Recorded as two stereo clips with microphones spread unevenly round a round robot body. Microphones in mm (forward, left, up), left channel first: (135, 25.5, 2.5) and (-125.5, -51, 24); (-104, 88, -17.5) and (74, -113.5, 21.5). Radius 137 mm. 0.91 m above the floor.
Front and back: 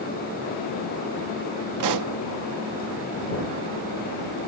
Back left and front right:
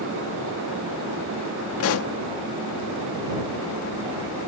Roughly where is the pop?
Behind.